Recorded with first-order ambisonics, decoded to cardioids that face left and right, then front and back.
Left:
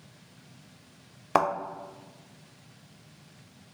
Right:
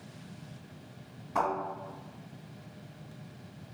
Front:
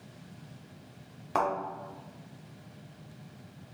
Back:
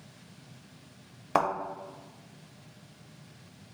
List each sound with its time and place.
1.4 s a thud: 110° left, 0.7 m